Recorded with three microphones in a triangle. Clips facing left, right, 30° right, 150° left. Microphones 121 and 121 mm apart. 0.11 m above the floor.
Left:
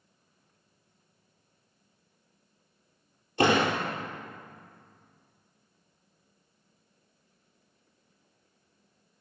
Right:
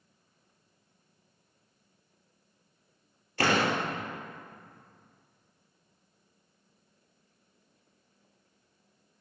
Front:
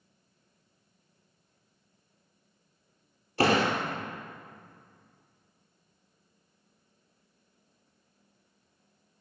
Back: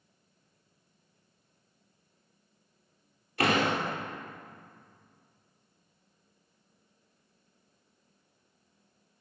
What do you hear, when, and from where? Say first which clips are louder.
3.4 s a door slam: left 3 dB, front 2 dB; 25° left, 2 m